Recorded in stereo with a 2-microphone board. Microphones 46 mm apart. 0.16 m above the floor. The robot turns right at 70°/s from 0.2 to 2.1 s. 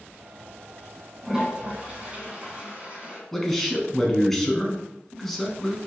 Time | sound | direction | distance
1.2 | a toilet flushing | 15° right (ahead or behind) | 1.7 m
3.3 | a man speaking | 5° left (ahead or behind) | 1.2 m